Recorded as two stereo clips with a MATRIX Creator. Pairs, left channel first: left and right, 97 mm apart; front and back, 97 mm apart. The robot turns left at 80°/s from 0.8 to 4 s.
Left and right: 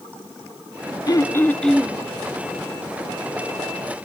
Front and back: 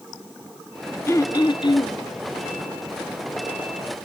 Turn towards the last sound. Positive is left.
turn(degrees=180)